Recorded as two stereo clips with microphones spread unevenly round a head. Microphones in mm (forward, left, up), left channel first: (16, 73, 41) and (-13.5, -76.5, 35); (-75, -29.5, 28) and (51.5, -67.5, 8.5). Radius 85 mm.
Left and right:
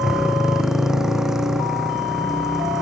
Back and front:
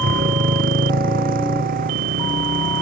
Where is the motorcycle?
15° right.